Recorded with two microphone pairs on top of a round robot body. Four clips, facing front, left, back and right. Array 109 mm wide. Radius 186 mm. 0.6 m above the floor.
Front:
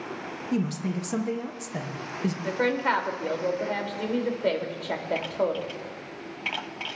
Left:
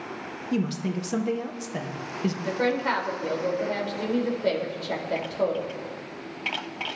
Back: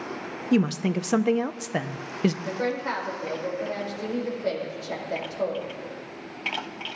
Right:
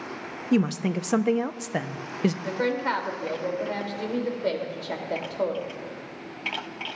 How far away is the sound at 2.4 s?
About 2 m.